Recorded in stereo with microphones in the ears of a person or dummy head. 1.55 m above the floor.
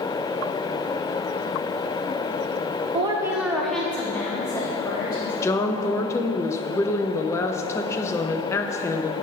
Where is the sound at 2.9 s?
35° right (ahead or behind), 0.7 m; by 5.3 s 25° left (ahead or behind), 2.5 m.